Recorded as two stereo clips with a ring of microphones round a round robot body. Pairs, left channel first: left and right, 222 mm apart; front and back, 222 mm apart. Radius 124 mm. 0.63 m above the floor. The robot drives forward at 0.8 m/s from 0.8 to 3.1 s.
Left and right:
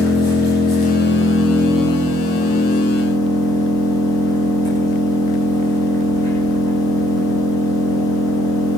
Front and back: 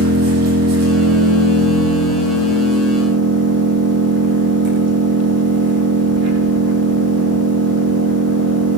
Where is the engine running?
160° left, 6.5 m; by 8.8 s 165° left, 8 m.